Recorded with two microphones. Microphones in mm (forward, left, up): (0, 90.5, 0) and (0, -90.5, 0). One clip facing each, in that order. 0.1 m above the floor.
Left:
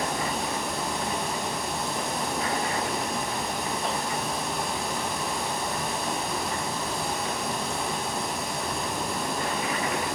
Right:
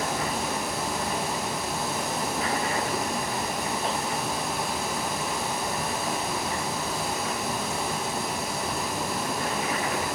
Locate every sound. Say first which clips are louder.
0.0 s running water: even; centre (ahead or behind), 3.5 m